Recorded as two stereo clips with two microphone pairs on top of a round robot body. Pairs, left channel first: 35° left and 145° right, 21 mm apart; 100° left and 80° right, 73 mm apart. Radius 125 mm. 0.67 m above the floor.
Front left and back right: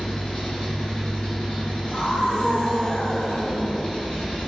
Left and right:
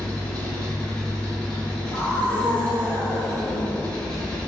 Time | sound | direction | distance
0.0 | an engine running | 20° left | 1.8 m
1.9 | a scream | 45° left | 1.7 m